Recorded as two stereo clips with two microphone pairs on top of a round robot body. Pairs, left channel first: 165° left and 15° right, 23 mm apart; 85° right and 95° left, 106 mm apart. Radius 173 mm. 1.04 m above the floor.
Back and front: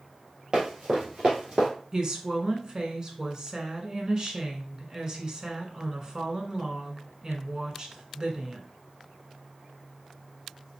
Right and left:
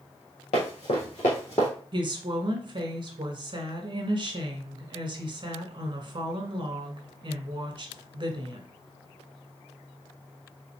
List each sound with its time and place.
0.5 s running footsteps: 75° right, 1.8 m; by 1.7 s 85° right, 1.1 m
1.9 s a woman speaking: 55° left, 1.6 m